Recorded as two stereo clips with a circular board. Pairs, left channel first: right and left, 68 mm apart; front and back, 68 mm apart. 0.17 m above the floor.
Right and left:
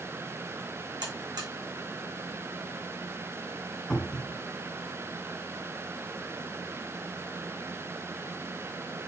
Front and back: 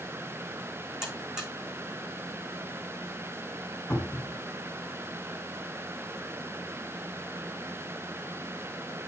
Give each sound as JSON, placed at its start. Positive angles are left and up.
{"t": 1.0, "sound": "a buzzer", "azimuth_deg": 100, "distance_m": 6.0}
{"t": 3.9, "sound": "a cupboard door", "azimuth_deg": -10, "distance_m": 1.7}